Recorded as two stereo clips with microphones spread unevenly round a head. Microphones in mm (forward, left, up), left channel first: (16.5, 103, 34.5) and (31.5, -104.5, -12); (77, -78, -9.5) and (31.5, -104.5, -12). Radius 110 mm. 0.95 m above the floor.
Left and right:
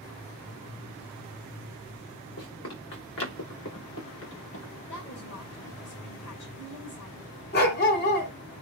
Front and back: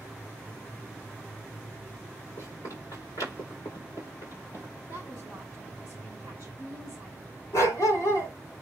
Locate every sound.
2.4 s running footsteps: 70° left, 4.5 m; by 4.7 s 75° left, 8 m
4.9 s a woman speaking: 60° left, 3.5 m
7.5 s a dog barking: 60° left, 2.5 m